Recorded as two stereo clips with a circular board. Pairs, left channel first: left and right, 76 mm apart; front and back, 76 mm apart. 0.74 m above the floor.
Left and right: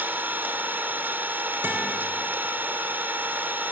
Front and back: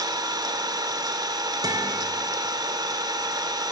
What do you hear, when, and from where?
0.0 s an engine running: 155° right, 1.6 m
1.6 s a guitar: 155° right, 3.5 m